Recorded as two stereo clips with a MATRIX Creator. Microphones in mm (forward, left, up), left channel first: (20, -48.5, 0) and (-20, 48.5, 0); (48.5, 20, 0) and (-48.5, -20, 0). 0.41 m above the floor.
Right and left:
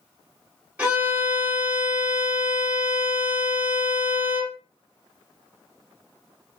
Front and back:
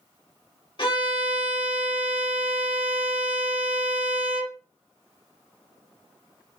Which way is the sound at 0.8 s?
40° left.